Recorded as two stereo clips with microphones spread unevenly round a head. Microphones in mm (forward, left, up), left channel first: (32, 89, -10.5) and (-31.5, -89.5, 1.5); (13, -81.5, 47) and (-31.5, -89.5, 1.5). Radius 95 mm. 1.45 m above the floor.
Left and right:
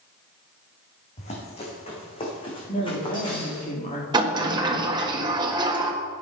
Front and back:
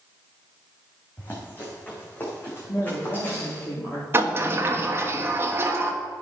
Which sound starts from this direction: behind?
A sliding door, at 4.1 s.